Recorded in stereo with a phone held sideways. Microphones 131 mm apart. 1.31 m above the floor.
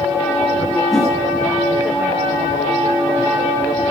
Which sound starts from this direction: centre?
A whoosh, at 0.9 s.